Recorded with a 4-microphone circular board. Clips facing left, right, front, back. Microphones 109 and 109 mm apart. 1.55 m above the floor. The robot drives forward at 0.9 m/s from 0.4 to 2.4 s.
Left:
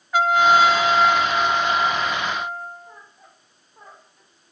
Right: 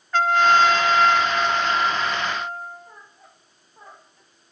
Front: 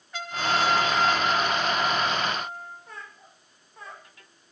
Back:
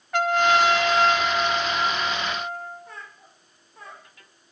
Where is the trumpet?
170° left, 1.2 m; by 2.9 s 175° left, 3 m.